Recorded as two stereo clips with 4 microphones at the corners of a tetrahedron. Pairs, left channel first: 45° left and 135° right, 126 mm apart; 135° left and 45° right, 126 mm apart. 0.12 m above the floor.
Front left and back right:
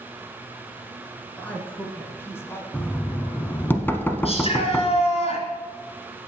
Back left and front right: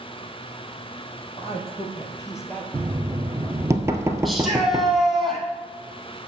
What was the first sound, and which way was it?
A man speaking, 120° left.